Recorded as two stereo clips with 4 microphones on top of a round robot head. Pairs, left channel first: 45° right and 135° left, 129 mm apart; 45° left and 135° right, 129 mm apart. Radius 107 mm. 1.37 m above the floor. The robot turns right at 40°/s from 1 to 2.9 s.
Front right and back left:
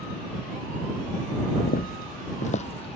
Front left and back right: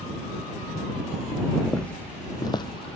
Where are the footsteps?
40° right; by 3.0 s straight ahead.